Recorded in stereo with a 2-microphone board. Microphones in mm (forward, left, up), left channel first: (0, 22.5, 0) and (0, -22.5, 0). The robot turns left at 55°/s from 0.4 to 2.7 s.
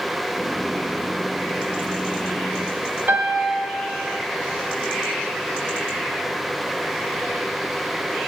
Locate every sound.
3.1 s a piano: 55° right (ahead or behind), 1.3 m